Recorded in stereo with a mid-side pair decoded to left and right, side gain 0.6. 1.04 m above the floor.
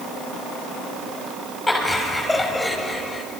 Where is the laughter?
10° left, 6.5 m; by 3.2 s 5° left, 5 m.